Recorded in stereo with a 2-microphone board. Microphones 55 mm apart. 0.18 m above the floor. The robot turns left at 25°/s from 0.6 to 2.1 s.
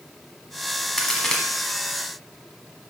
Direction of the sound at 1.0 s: 10° left (ahead or behind).